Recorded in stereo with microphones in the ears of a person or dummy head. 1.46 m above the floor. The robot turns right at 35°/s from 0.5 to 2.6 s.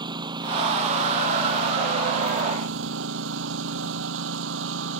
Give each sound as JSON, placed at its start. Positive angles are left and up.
{"t": 0.0, "sound": "a lawn mower", "azimuth_deg": -150}